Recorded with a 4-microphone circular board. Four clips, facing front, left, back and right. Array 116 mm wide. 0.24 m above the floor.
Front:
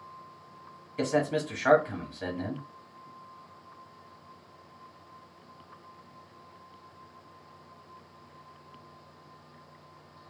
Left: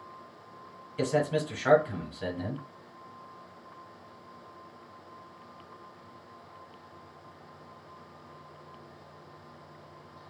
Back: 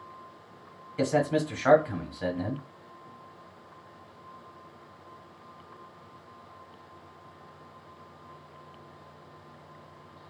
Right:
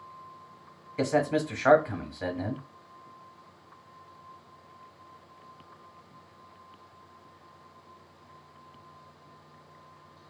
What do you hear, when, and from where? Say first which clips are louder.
1.0 s a man speaking: right 2 dB, back 2 dB; 90° right, 1.1 m